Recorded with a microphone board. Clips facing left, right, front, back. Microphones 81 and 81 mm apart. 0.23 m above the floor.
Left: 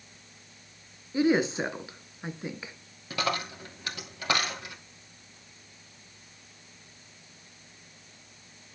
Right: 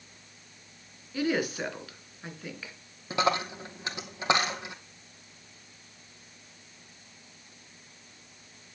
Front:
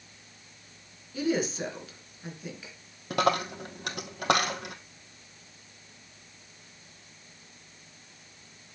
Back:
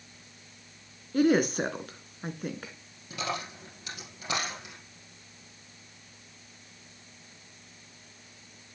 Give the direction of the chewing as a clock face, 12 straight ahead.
No chewing in this recording.